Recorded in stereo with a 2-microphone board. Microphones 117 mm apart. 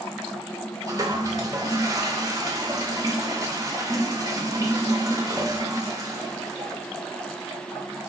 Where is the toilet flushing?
30° right (ahead or behind), 0.8 m.